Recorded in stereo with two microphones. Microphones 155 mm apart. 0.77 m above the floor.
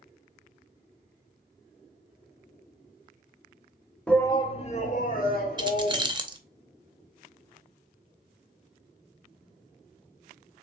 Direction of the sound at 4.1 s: 5° left (ahead or behind).